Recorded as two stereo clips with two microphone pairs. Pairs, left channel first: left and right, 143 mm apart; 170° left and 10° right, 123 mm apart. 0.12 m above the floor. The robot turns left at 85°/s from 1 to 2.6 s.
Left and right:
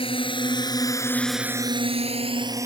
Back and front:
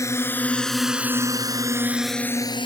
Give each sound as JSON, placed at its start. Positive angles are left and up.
{"t": 0.0, "sound": "a drone", "azimuth_deg": 115}